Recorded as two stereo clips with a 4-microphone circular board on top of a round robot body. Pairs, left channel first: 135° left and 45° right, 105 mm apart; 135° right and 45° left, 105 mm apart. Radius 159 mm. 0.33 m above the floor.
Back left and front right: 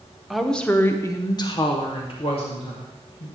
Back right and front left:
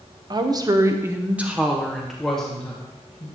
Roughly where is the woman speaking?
Ahead left.